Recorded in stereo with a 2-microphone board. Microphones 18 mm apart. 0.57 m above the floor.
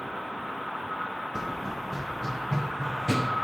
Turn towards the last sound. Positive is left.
turn(degrees=30)  # may be behind; listen again after turning